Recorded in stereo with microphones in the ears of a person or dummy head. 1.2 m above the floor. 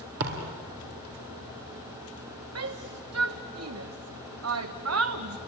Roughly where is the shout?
Right.